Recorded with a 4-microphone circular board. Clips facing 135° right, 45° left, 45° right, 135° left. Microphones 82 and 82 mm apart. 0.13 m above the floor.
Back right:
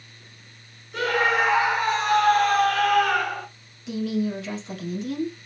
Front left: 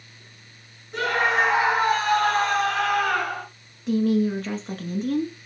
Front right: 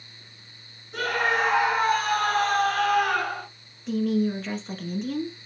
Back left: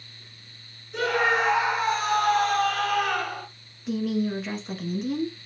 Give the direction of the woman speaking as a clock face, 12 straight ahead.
10 o'clock.